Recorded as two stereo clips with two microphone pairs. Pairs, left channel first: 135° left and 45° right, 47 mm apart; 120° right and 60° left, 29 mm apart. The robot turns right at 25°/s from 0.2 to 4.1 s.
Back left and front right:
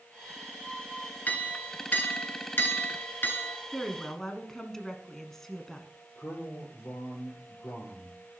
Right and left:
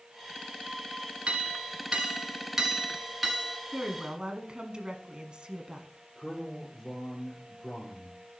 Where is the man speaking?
155° left, 3.5 m.